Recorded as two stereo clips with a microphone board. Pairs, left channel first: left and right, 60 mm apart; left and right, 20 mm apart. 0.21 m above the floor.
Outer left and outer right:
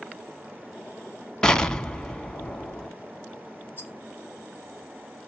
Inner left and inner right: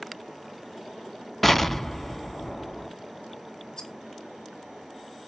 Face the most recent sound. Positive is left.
turn(degrees=30)  # may be behind; listen again after turning